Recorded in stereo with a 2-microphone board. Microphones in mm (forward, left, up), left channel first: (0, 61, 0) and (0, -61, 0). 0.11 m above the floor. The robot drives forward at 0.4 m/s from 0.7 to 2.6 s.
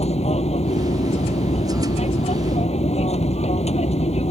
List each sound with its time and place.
0.0 s an aircraft: 60° left (ahead or behind)